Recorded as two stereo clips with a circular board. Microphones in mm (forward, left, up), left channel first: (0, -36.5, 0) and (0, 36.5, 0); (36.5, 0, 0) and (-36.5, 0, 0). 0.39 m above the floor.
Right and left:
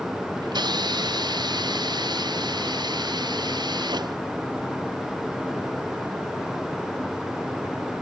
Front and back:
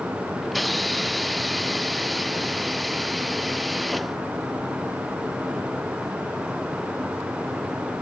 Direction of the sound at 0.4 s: 90° left.